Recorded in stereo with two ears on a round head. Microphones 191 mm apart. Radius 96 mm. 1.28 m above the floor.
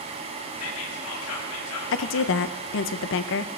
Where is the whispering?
80° left, 1.8 m.